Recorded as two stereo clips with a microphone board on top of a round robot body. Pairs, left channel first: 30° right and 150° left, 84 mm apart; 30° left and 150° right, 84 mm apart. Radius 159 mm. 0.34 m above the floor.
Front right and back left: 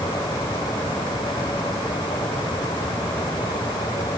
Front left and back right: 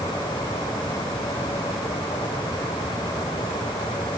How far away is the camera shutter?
I don't hear a camera shutter.